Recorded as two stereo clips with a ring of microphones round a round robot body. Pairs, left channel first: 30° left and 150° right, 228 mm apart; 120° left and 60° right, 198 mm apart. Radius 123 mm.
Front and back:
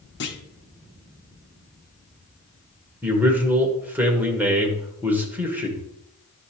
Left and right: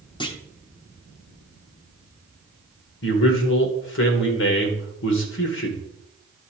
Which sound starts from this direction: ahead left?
A clunk, at 0.2 s.